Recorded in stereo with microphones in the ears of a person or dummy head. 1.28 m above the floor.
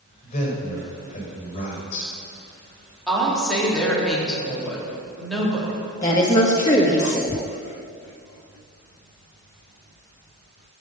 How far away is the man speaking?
About 5.5 m.